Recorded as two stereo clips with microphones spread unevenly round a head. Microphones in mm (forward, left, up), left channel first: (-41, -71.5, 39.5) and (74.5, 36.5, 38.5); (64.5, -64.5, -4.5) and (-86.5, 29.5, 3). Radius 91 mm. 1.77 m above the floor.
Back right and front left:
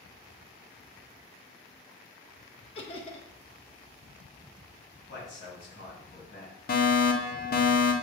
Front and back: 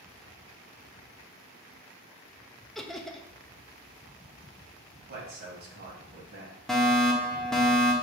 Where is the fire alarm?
120° right, 0.7 m.